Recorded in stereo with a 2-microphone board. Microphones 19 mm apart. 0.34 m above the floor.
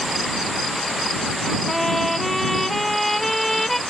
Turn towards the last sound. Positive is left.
turn(degrees=5)  # may be behind; listen again after turning